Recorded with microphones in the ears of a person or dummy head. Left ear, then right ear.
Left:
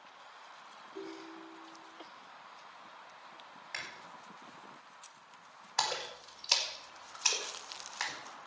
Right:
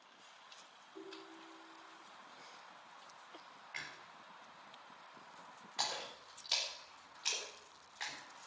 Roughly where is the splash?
Left.